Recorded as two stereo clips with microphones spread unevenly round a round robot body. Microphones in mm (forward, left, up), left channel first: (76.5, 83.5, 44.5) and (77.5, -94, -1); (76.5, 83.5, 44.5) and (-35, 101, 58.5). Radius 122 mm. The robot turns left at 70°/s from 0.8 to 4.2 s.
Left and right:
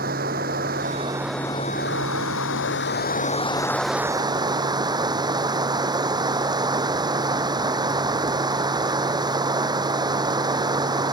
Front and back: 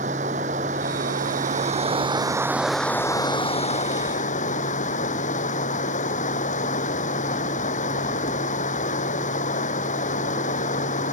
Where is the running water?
145° right; by 11.1 s 20° right.